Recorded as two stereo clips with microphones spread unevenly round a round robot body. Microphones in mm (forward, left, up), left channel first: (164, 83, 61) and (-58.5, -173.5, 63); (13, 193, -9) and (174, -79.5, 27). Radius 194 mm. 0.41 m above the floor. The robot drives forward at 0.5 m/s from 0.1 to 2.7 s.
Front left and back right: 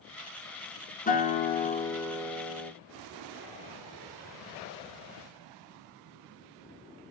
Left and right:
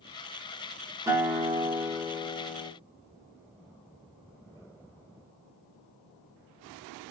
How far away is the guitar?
About 1.3 m.